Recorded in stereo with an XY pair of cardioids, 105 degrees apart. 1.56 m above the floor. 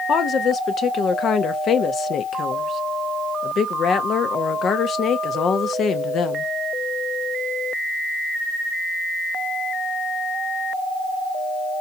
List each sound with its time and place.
0.1 s a woman speaking: 55° left, 0.8 m